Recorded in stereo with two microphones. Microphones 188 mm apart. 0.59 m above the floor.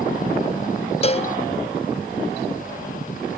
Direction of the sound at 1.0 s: 30° left (ahead or behind).